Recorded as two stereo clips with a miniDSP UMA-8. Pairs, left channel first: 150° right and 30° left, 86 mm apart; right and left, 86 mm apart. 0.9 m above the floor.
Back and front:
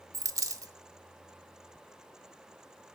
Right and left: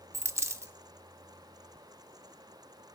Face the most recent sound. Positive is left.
turn(degrees=55)